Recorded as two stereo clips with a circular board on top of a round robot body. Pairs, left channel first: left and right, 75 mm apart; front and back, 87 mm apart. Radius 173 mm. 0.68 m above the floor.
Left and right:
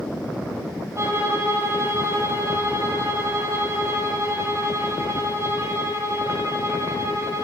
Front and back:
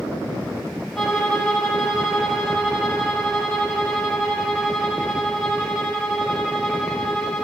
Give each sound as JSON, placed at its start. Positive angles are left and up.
{"t": 1.0, "sound": "a violin", "azimuth_deg": -90, "distance_m": 1.3}